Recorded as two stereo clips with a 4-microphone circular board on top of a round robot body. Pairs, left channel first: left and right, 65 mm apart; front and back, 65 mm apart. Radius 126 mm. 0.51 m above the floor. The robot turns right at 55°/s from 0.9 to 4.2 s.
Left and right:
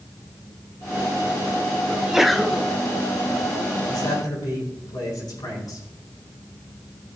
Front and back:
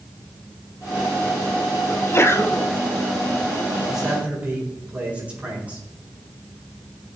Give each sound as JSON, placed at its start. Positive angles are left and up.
{"t": 1.9, "sound": "a sneeze", "azimuth_deg": -20, "distance_m": 1.5}
{"t": 3.9, "sound": "a man speaking", "azimuth_deg": 95, "distance_m": 7.0}